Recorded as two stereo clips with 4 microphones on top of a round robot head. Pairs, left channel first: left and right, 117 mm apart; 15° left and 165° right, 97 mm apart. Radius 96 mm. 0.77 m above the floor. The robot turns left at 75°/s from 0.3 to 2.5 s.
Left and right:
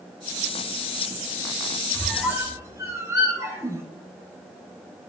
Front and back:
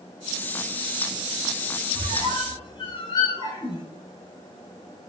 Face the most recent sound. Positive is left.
turn(degrees=-25)